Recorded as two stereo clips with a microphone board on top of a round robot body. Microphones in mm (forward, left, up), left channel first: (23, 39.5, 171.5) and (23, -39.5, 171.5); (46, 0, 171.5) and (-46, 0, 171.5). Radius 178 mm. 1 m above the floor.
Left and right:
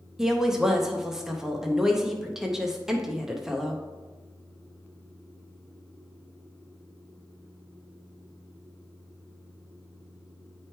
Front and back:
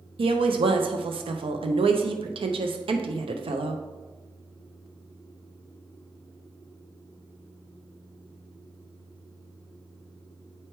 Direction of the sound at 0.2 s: 175° right.